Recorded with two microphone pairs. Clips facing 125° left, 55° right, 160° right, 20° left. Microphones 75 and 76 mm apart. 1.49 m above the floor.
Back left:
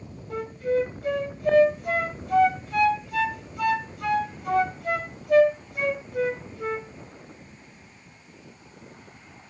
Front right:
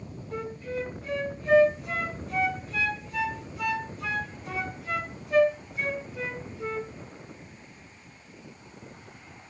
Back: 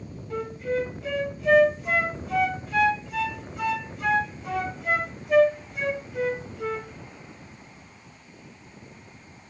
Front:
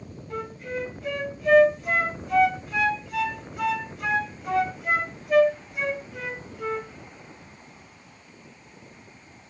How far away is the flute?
About 3 m.